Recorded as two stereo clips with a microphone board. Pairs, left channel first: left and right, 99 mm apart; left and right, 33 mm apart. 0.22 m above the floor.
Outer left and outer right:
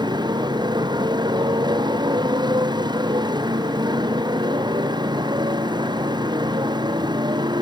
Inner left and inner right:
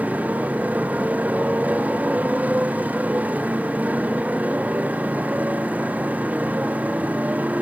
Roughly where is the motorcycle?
Right.